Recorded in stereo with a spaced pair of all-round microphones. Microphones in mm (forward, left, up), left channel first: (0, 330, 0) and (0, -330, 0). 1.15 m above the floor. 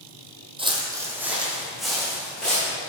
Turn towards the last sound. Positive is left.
turn(degrees=0)  # may be behind; listen again after turning